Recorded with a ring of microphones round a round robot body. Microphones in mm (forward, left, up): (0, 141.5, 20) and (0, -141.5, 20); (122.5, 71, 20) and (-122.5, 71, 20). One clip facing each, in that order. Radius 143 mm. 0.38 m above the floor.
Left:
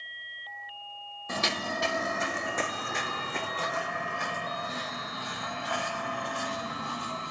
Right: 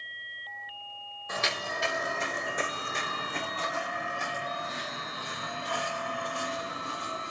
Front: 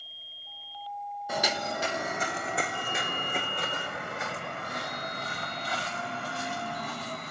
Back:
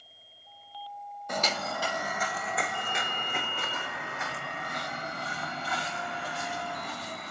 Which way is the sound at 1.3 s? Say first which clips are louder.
Left 3 dB, front 1 dB; 85° left.